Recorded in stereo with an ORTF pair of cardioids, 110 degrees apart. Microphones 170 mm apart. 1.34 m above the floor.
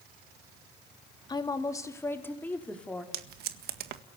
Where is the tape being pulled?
70° right, 1.8 m.